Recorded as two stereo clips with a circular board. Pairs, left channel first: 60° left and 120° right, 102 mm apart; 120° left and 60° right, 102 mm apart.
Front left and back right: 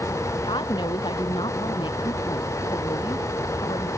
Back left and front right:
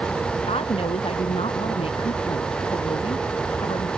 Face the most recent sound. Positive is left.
turn(degrees=100)